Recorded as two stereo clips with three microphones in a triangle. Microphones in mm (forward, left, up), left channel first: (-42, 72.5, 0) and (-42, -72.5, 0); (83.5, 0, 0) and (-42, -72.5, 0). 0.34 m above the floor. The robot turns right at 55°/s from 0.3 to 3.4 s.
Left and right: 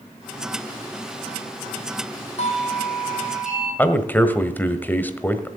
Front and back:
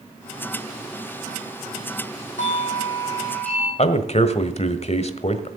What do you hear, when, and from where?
2.4 s a doorbell: 55° left, 5.5 m; by 3.7 s 110° left, 5.5 m
3.8 s a man speaking: 15° left, 1.4 m